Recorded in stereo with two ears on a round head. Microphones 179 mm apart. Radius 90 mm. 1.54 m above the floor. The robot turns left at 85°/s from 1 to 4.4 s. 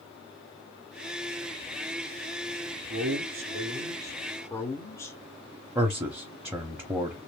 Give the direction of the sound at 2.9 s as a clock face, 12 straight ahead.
2 o'clock.